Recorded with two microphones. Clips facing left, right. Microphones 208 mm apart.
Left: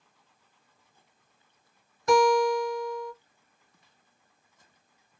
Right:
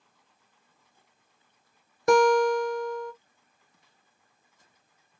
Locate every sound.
2.1 s a guitar: 60° right (ahead or behind), 1.0 m